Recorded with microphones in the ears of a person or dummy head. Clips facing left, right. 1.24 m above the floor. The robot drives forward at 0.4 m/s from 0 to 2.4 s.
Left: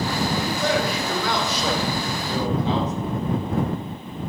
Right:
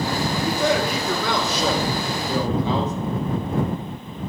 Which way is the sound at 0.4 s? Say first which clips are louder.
Right 2 dB; 75° right (ahead or behind).